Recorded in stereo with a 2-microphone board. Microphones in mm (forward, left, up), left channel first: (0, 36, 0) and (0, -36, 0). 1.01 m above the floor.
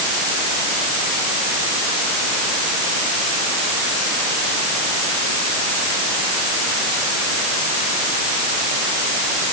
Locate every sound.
Only background noise.